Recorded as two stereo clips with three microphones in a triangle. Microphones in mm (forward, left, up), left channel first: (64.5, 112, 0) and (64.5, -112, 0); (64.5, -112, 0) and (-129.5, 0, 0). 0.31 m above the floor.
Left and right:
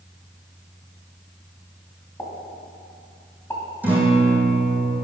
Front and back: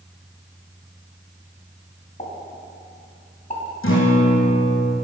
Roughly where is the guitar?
Ahead.